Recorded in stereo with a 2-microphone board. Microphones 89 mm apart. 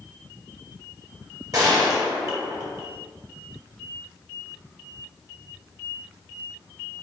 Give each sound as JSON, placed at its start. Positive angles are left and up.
{"t": 1.5, "sound": "a gunshot", "side_deg": -45, "distance_m": 2.0}